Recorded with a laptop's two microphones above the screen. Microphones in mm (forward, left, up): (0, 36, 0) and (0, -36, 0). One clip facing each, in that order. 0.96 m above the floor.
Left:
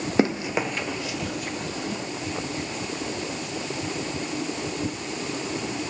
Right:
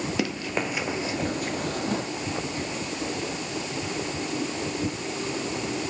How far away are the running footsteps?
About 1.1 m.